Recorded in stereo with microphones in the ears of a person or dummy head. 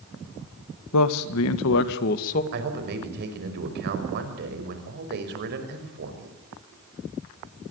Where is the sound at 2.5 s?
60° right (ahead or behind), 5.5 m.